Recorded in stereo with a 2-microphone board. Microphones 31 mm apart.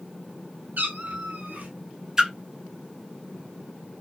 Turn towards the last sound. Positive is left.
turn(degrees=-20)  # may be behind; listen again after turning